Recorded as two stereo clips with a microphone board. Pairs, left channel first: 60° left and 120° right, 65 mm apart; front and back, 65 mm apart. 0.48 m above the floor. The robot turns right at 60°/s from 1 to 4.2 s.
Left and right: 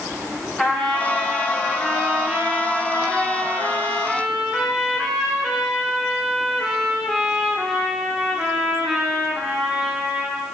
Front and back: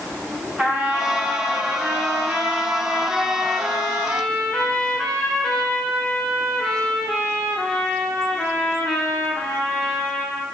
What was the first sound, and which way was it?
A trumpet, 120° left.